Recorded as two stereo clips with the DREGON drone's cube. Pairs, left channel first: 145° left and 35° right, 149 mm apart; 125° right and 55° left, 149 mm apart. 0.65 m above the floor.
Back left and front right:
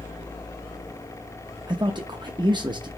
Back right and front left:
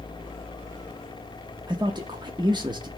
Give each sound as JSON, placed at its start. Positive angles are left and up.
{"t": 1.7, "sound": "a man speaking", "azimuth_deg": 10, "distance_m": 0.7}